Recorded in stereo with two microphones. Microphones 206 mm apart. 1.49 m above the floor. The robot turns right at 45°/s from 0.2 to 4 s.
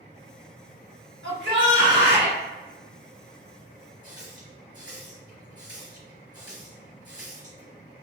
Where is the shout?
95° right, 1.3 m; by 2.4 s 45° right, 1.3 m.